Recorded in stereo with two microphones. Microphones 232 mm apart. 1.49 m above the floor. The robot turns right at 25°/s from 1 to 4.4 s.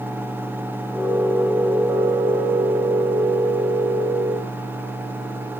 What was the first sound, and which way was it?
Only background noise.